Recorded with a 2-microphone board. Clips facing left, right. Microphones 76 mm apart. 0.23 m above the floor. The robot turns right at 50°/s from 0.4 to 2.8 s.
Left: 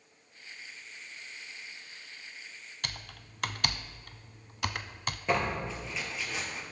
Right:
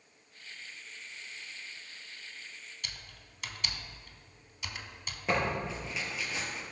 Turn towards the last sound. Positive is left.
turn(degrees=-5)  # may be behind; listen again after turning